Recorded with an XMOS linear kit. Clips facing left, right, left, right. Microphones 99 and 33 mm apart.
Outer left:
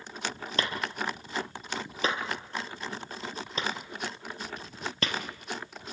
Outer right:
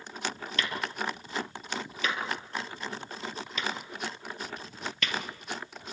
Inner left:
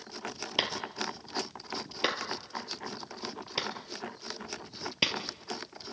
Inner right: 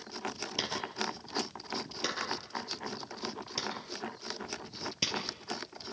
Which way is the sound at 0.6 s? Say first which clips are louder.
Outer left 1 dB, inner left 4 dB; 35° left (ahead or behind).